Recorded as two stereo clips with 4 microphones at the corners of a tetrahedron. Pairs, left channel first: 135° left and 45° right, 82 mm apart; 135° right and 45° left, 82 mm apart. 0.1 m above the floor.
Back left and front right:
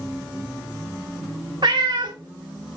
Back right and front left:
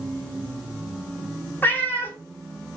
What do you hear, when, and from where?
1.6 s a cat meowing: 70° right, 0.6 m